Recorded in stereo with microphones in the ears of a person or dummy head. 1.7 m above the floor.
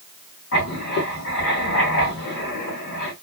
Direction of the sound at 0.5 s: 65° left (ahead or behind).